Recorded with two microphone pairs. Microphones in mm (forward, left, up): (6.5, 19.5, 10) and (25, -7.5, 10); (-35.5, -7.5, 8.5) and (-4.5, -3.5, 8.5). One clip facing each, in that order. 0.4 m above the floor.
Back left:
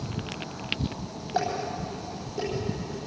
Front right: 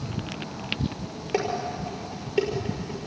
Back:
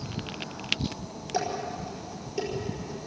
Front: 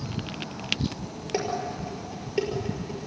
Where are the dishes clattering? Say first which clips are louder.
Front right 1 dB, front 1 dB; 35° right, 6 m.